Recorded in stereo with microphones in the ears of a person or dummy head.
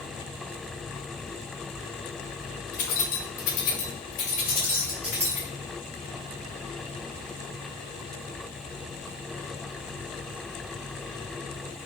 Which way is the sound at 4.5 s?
10° right (ahead or behind).